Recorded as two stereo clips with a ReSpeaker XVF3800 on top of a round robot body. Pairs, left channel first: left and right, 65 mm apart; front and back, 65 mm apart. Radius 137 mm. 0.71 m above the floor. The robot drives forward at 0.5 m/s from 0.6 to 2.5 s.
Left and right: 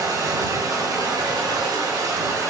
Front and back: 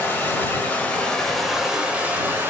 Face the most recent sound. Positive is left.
turn(degrees=-125)